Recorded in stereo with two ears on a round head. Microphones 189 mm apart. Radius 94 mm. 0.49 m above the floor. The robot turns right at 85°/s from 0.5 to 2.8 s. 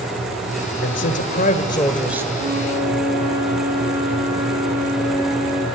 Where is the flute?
45° right, 6.5 m; by 5.7 s 10° right, 6.5 m.